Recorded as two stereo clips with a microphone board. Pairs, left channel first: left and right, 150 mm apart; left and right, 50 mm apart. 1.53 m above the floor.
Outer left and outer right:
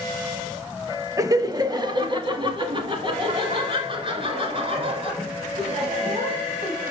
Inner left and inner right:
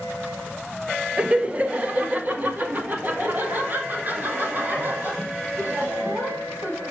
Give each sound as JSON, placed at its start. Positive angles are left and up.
{"t": 1.2, "sound": "laughter", "side_deg": -20, "distance_m": 1.3}